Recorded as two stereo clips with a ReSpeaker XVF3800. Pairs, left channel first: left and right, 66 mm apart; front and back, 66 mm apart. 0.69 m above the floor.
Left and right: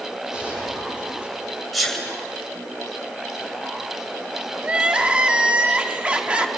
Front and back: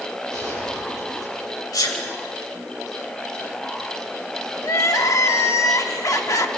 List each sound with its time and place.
0.3 s a gunshot: 20° right, 9.5 m
1.7 s a sneeze: straight ahead, 4.5 m
4.6 s crying: 20° right, 1.1 m